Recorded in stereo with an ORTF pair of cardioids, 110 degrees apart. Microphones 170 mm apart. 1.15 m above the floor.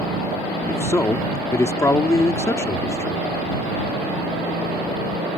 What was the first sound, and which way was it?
A man speaking, 15° left.